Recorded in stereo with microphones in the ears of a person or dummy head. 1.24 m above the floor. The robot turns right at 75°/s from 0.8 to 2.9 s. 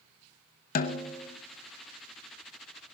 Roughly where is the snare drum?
Behind left.